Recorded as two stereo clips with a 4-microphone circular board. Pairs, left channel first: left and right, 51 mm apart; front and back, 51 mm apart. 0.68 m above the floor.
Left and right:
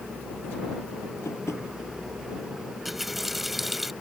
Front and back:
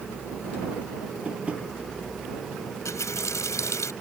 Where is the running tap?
5° right.